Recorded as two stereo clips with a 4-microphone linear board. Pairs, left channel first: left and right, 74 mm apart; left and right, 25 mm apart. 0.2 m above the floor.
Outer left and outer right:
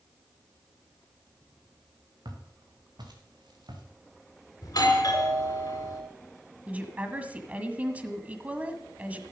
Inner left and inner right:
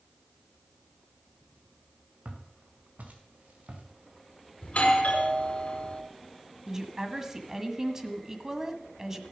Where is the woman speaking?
20° right (ahead or behind), 1.4 m.